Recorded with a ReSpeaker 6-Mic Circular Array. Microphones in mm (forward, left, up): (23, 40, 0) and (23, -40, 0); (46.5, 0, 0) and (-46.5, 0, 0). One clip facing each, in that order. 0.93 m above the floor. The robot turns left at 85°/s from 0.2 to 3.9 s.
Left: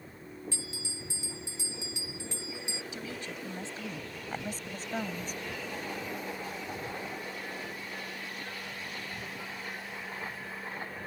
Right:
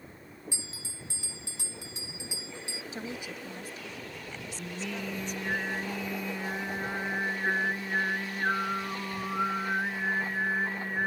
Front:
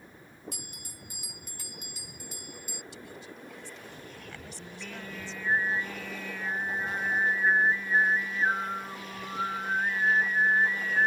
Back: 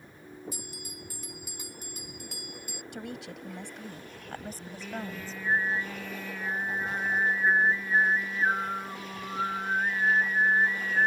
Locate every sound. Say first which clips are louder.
0.5 s a bell: left 3 dB, back 5 dB; 15° right; by 2.8 s 145° left
2.9 s a woman speaking: right 1 dB, back 5 dB; 140° right; by 5.4 s 135° left
4.6 s singing: even, back 4 dB; 95° right